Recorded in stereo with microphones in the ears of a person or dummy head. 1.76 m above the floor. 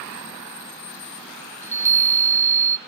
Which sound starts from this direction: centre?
A chime, at 1.6 s.